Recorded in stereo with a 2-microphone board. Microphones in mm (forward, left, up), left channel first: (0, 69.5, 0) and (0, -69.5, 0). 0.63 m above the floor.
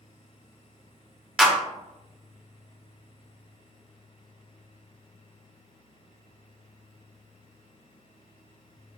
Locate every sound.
1.4 s a clap: 5° right (ahead or behind), 0.7 m